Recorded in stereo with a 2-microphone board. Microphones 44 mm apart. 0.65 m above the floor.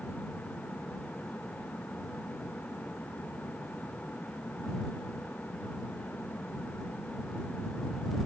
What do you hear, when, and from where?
Only background noise.